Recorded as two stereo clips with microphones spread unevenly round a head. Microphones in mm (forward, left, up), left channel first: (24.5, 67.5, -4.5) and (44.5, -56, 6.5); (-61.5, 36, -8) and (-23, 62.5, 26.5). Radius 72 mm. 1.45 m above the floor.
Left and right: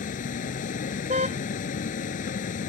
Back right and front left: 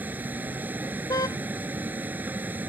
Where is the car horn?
130° right.